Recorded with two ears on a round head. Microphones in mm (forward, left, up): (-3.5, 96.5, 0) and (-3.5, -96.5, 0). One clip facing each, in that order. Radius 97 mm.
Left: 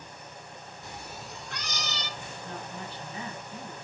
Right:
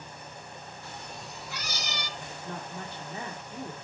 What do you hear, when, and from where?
0.8 s a cat meowing: 15° left (ahead or behind), 0.6 m; by 2.1 s 15° right (ahead or behind), 1.2 m
2.2 s a woman speaking: 40° right (ahead or behind), 1.7 m